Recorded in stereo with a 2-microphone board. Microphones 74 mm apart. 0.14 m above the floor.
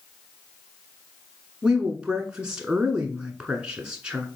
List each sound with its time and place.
1.6 s a woman speaking: 15° right (ahead or behind), 1.2 m